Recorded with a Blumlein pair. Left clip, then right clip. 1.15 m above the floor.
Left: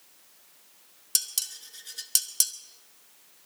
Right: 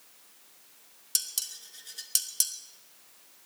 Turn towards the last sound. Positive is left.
turn(degrees=10)